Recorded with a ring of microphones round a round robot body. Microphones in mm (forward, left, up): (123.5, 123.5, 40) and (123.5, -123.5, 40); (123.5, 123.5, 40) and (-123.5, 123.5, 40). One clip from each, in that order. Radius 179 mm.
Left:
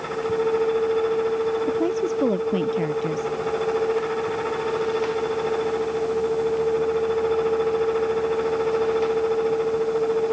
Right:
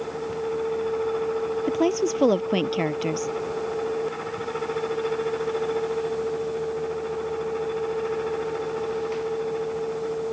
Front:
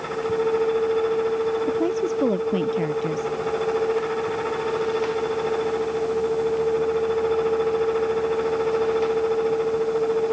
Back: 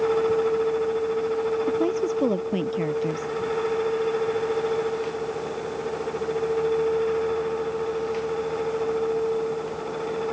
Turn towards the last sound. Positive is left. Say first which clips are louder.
# even, front 1 dB
turn(degrees=-90)